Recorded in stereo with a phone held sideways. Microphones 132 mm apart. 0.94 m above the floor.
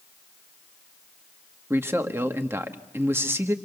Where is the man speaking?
20° right (ahead or behind), 1.2 m.